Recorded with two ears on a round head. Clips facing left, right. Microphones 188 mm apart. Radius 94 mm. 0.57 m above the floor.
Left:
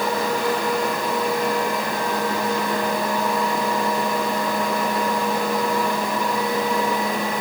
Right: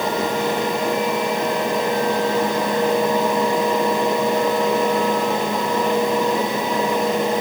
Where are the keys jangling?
No keys jangling in this recording.